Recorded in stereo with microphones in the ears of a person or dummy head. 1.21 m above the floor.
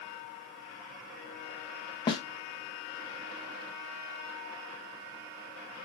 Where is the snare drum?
30° left (ahead or behind), 1.3 m.